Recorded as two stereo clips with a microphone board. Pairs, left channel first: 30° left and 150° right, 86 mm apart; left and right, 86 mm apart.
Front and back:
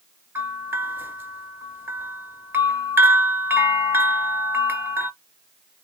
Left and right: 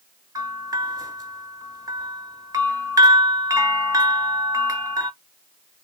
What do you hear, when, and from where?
0.3 s a bell: 95° right, 0.7 m